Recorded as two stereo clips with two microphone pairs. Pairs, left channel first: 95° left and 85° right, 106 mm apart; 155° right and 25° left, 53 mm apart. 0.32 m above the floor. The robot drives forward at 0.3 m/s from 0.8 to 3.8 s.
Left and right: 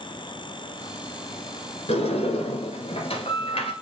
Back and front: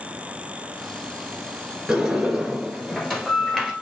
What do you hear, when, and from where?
1.9 s a sliding door: 105° left, 1.6 m; by 3.7 s 120° left, 1.8 m